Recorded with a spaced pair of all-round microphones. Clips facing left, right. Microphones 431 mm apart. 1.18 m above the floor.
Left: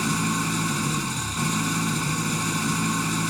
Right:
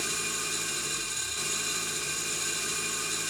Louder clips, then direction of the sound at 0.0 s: Left 14 dB; 70° left (ahead or behind).